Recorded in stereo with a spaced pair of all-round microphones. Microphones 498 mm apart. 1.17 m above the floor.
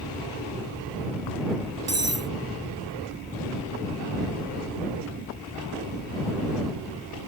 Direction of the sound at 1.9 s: 30° right (ahead or behind).